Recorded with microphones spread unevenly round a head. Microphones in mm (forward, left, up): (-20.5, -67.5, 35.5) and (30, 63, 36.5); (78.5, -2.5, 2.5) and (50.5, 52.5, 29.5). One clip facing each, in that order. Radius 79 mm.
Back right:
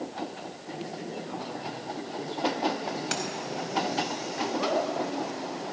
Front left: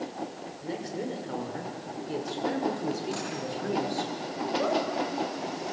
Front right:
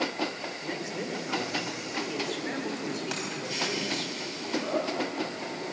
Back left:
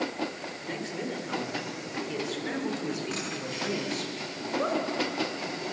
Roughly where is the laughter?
Behind left.